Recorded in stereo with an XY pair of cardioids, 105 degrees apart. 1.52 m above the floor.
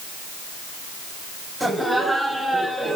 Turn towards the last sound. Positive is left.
turn(degrees=-10)